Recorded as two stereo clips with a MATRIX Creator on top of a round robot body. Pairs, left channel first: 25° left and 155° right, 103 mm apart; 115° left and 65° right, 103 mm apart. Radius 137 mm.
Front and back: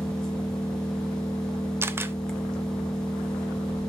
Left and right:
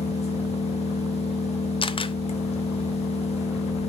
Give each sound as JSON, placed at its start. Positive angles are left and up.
{"t": 0.0, "sound": "an engine running", "azimuth_deg": 105, "distance_m": 1.3}
{"t": 1.8, "sound": "a camera shutter", "azimuth_deg": 140, "distance_m": 0.7}